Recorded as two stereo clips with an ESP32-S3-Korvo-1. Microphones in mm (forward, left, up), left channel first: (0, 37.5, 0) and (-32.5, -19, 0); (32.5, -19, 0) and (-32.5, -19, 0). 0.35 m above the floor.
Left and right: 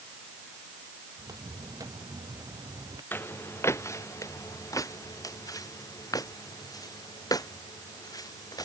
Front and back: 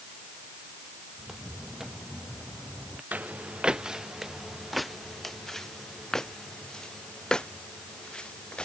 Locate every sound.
1.2 s footsteps: 95° right; by 3.0 s 100° right
3.1 s footsteps: 115° left; by 8.6 s 75° left